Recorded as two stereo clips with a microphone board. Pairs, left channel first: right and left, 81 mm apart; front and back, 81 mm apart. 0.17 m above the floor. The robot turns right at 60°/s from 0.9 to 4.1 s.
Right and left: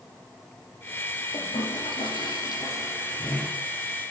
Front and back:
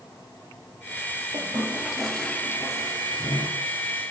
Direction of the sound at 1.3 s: 130° right.